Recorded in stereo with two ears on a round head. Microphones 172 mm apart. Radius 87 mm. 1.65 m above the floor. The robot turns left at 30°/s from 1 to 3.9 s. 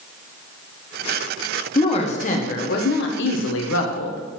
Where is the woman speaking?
155° left, 1.2 m; by 4.2 s 90° left, 1.2 m.